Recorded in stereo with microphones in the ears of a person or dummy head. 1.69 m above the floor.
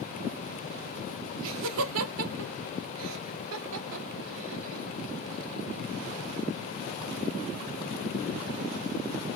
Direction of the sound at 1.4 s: 75° right (ahead or behind).